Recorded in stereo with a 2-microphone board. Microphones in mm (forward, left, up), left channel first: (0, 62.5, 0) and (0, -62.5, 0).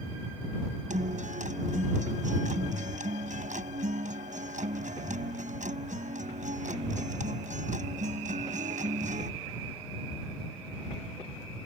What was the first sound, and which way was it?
A guitar, 85° right.